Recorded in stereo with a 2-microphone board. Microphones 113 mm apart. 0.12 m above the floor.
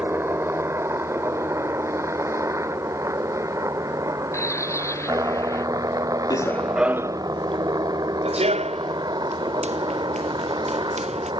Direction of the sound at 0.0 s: 20° right (ahead or behind).